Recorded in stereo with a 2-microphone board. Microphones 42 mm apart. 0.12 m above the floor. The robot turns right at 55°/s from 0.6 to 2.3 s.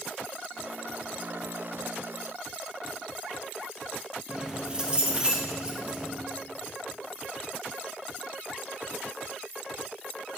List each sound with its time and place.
4.3 s keys jangling: 20° right (ahead or behind), 2.5 m